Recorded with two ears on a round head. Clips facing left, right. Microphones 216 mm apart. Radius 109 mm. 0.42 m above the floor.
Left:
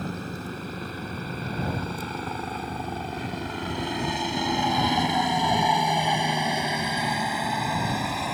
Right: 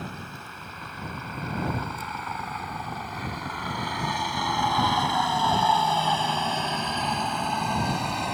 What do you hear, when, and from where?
0.0 s a helicopter: 35° left (ahead or behind); by 8.3 s centre (ahead or behind)